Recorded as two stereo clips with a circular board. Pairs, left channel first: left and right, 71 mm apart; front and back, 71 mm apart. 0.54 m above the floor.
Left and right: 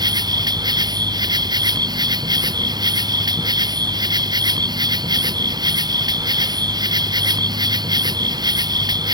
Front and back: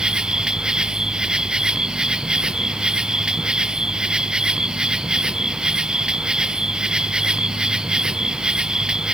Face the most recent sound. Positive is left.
turn(degrees=-100)